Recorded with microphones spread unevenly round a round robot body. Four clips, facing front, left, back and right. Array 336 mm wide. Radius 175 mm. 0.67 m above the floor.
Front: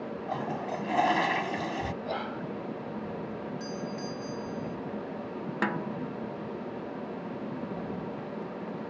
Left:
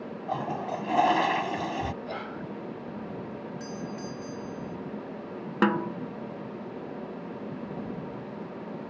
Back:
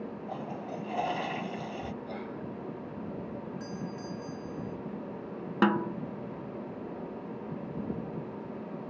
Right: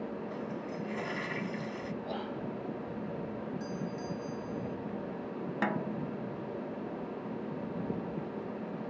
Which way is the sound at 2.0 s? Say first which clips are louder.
Left 1 dB, front 5 dB; 25° left.